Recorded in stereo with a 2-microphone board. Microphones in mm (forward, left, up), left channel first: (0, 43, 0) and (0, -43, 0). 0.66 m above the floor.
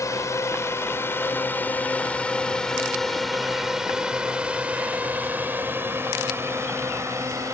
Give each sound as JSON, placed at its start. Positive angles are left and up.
{"t": 0.0, "sound": "a drone", "side_deg": 35}